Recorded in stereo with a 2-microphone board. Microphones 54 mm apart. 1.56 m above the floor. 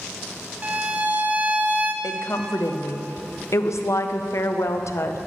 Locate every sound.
0.6 s a violin: 30° right (ahead or behind), 0.6 m
2.0 s a woman speaking: 65° left (ahead or behind), 0.6 m